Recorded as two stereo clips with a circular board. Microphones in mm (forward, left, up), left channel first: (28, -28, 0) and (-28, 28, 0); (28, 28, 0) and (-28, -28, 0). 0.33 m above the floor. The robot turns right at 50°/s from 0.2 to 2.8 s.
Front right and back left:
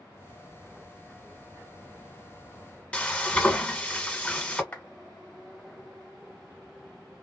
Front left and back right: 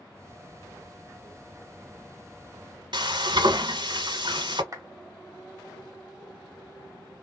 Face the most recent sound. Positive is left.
turn(degrees=-110)